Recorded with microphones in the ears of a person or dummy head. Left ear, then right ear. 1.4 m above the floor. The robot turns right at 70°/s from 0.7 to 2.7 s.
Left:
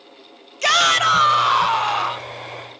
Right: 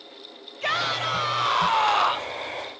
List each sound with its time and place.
0.6 s a shout: 100° left, 1.3 m; by 2.4 s 145° right, 1.3 m